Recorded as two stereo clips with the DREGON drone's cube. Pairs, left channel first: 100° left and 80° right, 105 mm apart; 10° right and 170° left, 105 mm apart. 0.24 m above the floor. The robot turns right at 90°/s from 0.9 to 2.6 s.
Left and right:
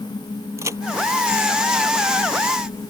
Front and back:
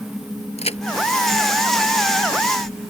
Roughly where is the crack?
Ahead.